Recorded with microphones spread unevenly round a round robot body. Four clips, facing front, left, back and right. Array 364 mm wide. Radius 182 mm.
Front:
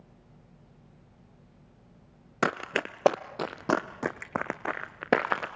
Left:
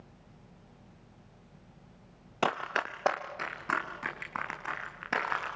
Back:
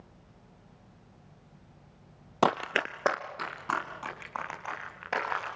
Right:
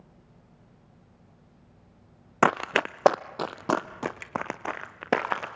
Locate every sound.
2.4 s running footsteps: 110° right, 0.6 m; by 5.5 s 35° right, 2 m